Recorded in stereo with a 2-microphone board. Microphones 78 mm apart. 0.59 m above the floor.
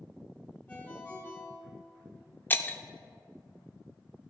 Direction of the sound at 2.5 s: 25° left (ahead or behind).